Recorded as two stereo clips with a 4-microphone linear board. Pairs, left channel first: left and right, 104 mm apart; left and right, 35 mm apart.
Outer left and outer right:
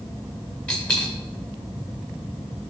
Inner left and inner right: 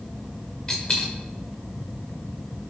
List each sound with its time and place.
0.7 s a dropped coin: 10° left (ahead or behind), 1.7 m